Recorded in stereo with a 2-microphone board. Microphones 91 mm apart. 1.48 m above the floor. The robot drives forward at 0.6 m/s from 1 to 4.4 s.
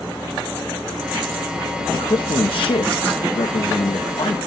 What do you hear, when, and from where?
1.9 s a man speaking: 55° left (ahead or behind), 1.4 m